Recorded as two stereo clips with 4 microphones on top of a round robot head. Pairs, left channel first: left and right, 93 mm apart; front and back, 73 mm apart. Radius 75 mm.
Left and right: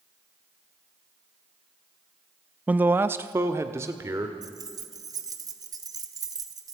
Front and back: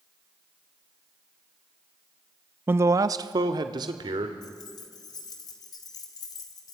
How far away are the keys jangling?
About 1.7 m.